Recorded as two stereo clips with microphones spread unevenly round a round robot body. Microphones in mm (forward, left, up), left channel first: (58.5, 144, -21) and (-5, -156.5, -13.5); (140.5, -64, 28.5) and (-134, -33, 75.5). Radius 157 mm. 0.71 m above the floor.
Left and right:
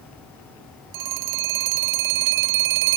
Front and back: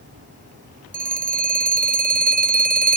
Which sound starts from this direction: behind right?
A phone ringing, at 0.9 s.